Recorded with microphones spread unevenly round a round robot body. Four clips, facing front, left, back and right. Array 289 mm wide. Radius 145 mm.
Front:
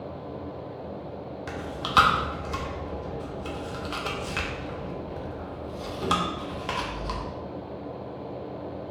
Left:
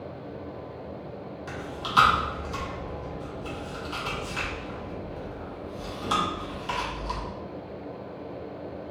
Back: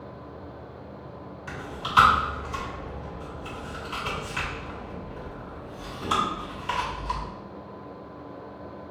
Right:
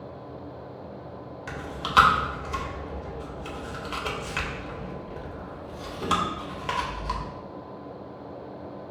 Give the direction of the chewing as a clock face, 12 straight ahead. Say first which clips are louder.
Right 3 dB, front 2 dB; 1 o'clock.